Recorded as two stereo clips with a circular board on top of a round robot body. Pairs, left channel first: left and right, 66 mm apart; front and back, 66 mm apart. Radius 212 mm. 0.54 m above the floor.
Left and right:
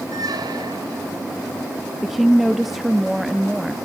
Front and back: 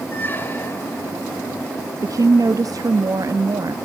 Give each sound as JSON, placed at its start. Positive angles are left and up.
{"t": 0.1, "sound": "a squeak", "azimuth_deg": -60, "distance_m": 1.3}
{"t": 2.0, "sound": "a woman speaking", "azimuth_deg": -175, "distance_m": 1.2}